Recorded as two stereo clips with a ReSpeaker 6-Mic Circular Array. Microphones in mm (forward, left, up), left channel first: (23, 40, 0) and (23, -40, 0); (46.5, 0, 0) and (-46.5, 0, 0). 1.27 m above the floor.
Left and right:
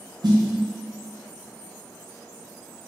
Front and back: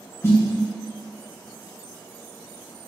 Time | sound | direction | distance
0.2 | a snare drum | 65° right | 0.9 m